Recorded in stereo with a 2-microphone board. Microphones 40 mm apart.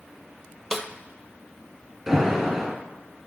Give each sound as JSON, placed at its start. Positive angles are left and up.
{"t": 0.7, "sound": "a snare drum", "side_deg": -10, "distance_m": 0.9}
{"t": 2.1, "sound": "an alarm", "side_deg": -15, "distance_m": 2.5}